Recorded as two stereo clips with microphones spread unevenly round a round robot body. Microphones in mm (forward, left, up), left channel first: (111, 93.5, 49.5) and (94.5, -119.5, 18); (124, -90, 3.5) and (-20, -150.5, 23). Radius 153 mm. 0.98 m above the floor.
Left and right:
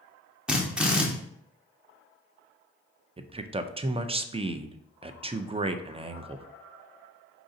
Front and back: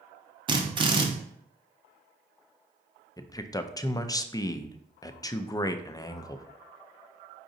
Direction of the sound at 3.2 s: 40° right.